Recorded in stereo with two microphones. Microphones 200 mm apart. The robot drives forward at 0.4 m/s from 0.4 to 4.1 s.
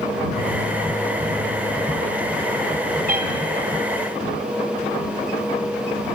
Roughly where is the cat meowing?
Right.